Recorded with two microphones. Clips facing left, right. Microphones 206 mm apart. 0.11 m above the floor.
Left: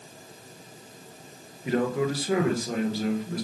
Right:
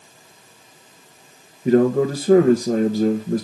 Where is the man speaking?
45° right (ahead or behind), 1.6 m.